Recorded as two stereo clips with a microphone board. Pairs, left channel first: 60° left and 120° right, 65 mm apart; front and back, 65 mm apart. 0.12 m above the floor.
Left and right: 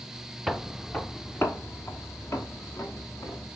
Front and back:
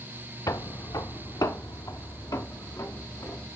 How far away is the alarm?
No alarm in this recording.